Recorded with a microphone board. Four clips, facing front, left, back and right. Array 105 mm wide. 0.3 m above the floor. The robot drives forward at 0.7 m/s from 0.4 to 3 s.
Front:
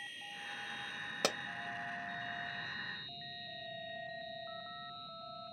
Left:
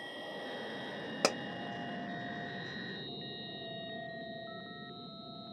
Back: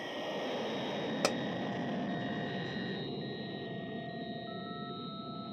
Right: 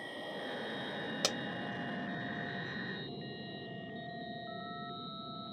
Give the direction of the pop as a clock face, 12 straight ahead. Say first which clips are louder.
Left 7 dB, back 3 dB; 8 o'clock.